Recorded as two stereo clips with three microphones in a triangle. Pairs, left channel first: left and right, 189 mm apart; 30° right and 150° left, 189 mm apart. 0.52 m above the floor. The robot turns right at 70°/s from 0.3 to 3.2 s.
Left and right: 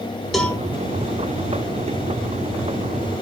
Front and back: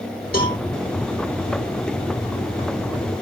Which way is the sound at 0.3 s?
Straight ahead.